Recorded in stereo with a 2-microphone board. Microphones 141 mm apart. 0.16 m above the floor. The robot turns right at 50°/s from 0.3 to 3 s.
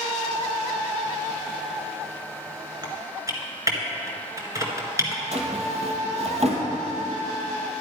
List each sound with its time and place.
2.8 s typing on a keyboard: 30° right (ahead or behind), 1.8 m; by 5.2 s 25° right (ahead or behind), 1.8 m
5.3 s a drawer: 55° right (ahead or behind), 2.0 m